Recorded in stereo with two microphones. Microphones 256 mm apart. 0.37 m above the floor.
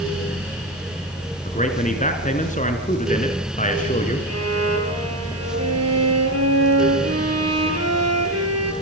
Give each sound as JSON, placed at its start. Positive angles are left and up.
{"t": 1.4, "sound": "a man speaking", "side_deg": 30, "distance_m": 4.0}
{"t": 4.3, "sound": "a violin", "side_deg": -70, "distance_m": 5.5}